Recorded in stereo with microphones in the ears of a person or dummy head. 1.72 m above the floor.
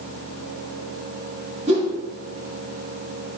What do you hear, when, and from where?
1.7 s a whoosh: 30° right (ahead or behind), 1.0 m